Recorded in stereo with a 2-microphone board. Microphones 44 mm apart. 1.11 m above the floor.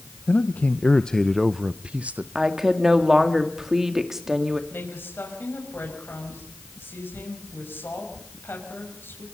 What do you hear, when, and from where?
0.3 s a man speaking: 50° left (ahead or behind), 0.8 m; by 2.2 s 40° right (ahead or behind), 0.8 m
2.4 s a woman speaking: 10° right (ahead or behind), 2.0 m
4.7 s a woman speaking: 60° left (ahead or behind), 6 m